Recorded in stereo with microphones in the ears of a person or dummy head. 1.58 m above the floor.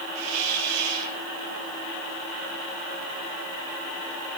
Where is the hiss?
75° right (ahead or behind), 2 m.